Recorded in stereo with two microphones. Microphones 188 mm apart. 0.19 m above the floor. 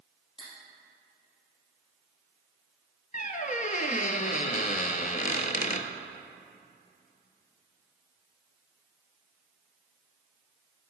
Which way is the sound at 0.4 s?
30° left (ahead or behind).